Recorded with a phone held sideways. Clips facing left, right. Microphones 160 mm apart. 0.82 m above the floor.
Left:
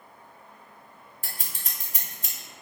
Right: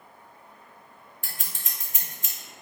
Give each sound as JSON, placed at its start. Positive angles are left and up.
{"t": 1.2, "sound": "scissors", "side_deg": 35, "distance_m": 0.8}